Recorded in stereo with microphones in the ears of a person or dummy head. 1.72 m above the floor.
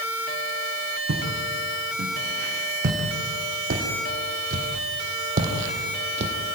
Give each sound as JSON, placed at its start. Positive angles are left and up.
{"t": 1.1, "sound": "footsteps", "side_deg": -50, "distance_m": 7.0}